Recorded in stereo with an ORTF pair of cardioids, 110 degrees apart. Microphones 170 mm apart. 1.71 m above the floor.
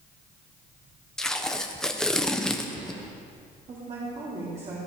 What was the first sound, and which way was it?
Tape being pulled, 5° left.